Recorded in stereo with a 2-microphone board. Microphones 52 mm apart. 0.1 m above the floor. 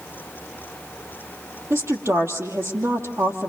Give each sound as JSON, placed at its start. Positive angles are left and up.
{"t": 1.7, "sound": "a woman speaking", "side_deg": -60, "distance_m": 3.0}